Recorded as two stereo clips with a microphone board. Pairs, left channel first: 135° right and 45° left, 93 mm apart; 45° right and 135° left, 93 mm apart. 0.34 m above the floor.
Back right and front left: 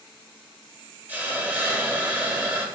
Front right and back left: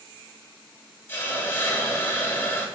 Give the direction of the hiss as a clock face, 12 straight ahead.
12 o'clock.